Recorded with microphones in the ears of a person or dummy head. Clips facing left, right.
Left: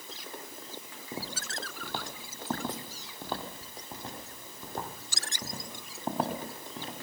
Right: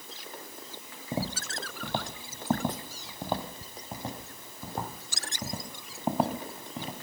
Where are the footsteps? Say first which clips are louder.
Right 6 dB; 20° right (ahead or behind), 1.9 m; by 6.9 s 10° right (ahead or behind), 5 m.